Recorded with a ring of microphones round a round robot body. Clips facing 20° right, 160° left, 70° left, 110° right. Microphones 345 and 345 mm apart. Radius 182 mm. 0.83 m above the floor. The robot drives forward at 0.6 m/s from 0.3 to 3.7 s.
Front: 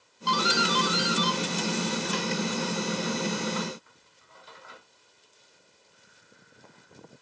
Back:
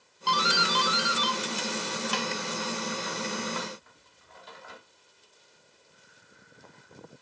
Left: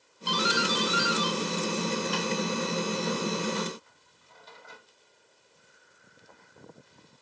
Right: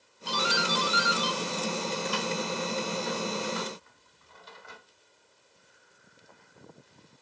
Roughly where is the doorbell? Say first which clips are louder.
Front 4 dB, left 2 dB; behind left.